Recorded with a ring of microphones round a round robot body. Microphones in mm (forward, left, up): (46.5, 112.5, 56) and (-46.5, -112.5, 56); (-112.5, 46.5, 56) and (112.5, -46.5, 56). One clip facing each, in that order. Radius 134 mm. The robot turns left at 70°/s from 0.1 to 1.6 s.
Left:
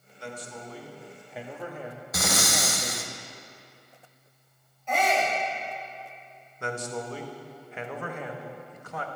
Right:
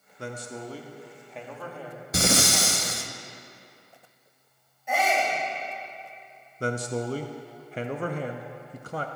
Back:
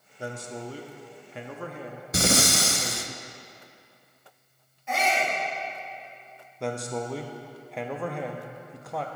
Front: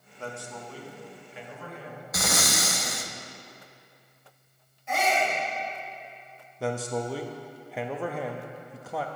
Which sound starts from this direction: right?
A man speaking, at 6.6 s.